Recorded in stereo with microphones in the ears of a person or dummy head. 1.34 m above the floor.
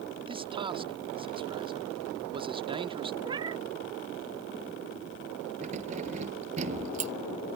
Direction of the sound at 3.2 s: 20° right (ahead or behind).